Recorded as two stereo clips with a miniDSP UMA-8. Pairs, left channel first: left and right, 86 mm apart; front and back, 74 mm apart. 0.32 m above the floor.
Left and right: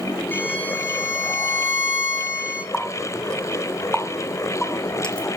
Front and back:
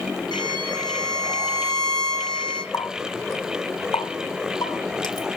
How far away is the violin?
About 3.5 m.